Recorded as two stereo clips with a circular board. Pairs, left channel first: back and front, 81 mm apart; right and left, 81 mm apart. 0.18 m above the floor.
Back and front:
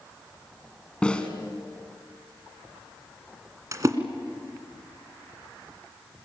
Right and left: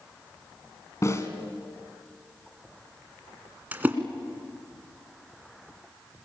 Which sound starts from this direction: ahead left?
A splash, at 3.7 s.